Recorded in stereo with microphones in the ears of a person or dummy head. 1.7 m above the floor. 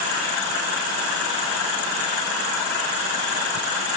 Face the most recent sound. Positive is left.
No sound to turn to.